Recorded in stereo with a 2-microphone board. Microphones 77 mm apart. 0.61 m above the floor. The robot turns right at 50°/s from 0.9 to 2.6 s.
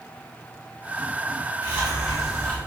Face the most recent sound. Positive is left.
turn(degrees=20)